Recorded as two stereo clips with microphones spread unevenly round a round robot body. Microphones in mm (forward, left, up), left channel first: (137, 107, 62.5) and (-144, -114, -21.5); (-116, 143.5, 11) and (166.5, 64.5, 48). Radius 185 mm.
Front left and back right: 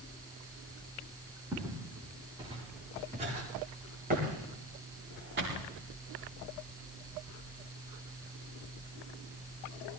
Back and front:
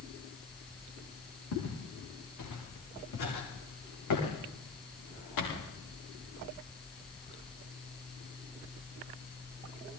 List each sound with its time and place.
1.5 s footsteps: 135° left, 8 m; by 5.6 s 155° left, 8.5 m